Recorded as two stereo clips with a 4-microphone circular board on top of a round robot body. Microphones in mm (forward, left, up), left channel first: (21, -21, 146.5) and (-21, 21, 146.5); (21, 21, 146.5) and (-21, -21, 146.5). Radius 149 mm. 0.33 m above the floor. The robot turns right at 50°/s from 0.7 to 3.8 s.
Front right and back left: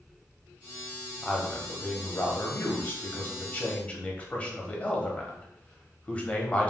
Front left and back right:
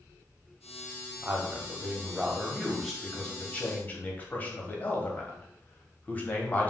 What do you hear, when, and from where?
1.2 s a man speaking: 125° right, 1.1 m; by 6.7 s 5° left, 1.1 m